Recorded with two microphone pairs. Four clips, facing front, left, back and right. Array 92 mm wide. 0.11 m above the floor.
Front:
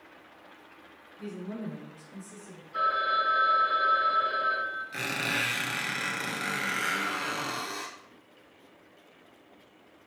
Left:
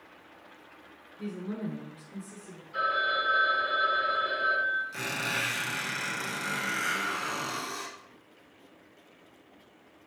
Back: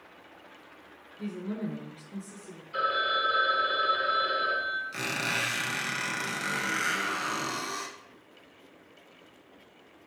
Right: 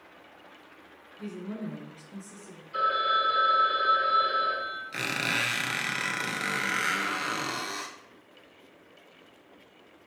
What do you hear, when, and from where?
1.2 s a woman speaking: 135° left, 1.1 m; by 2.6 s 155° right, 1.4 m
2.7 s a phone ringing: 150° right, 1.4 m
4.9 s a squeak: 85° right, 0.8 m